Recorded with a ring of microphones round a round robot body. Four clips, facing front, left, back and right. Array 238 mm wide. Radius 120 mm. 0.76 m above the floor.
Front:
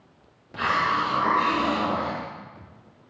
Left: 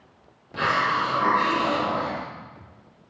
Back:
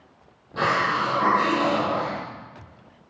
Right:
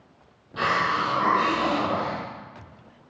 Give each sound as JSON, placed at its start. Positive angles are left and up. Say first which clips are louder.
{"t": 0.6, "sound": "a hiss", "louder": "left 1 dB, back 1 dB", "azimuth_deg": 160, "distance_m": 6.5}